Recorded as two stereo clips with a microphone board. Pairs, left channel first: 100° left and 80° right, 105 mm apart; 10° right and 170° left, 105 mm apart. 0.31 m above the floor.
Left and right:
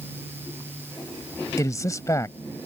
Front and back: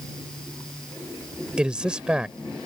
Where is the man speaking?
95° left.